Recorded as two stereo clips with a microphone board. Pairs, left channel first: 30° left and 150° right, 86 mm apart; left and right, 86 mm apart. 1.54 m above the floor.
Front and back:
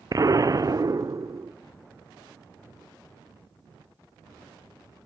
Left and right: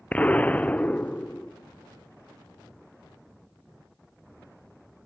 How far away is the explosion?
About 0.8 m.